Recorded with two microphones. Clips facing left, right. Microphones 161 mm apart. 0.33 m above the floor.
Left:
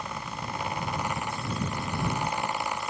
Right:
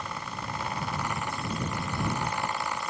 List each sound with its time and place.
Only background noise.